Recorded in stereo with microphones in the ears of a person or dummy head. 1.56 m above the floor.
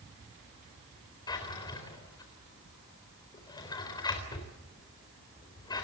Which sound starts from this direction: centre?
A drawer, at 1.3 s.